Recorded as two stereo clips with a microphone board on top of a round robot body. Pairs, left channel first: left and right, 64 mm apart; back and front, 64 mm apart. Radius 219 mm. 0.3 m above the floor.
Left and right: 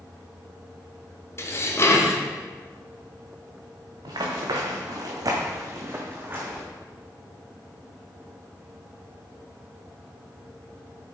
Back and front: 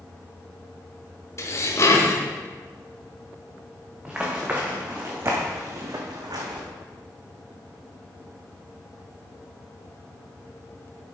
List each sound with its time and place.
1.4 s dishes clattering: 140° left, 1.8 m
4.0 s running footsteps: 75° right, 2 m; by 6.6 s 20° right, 1.8 m